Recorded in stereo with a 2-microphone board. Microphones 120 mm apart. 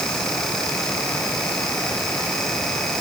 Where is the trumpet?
I don't hear a trumpet.